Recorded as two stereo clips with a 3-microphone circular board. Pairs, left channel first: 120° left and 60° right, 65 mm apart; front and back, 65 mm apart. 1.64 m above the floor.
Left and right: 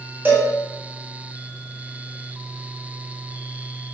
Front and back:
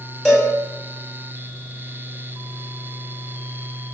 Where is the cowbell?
75° right, 0.9 m.